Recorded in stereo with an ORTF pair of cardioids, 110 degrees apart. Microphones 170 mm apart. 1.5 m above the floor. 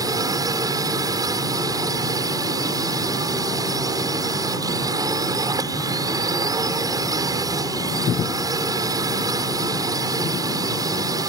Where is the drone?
20° right.